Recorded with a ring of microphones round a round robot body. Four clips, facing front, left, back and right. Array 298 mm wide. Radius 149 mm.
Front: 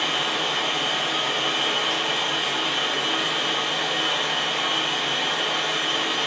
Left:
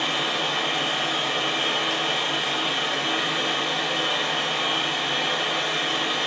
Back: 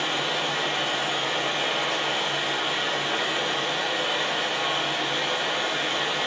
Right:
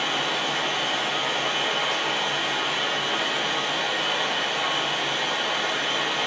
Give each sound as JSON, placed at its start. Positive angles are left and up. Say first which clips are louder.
{"t": 0.0, "sound": "running water", "louder": "even, front 1 dB", "azimuth_deg": 85, "distance_m": 0.7}